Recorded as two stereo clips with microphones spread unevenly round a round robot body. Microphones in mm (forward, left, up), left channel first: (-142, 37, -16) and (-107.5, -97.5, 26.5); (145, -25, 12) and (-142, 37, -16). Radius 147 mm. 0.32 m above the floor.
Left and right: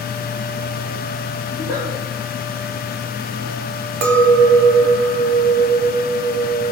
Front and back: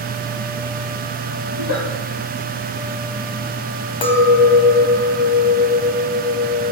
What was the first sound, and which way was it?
A giggle, 35° left.